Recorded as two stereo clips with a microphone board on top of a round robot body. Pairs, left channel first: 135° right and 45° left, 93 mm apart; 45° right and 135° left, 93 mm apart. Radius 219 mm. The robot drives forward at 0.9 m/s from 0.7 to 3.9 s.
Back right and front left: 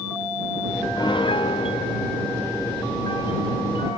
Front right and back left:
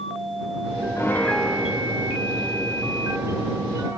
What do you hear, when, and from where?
1.0 s a piano: 100° right, 0.8 m; by 4.0 s 165° right, 3 m